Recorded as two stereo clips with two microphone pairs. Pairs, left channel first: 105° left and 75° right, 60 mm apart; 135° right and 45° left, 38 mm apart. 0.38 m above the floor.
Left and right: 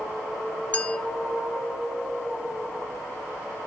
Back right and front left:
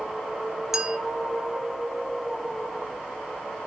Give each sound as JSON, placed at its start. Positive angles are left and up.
{"t": 0.7, "sound": "a clink", "azimuth_deg": 100, "distance_m": 0.8}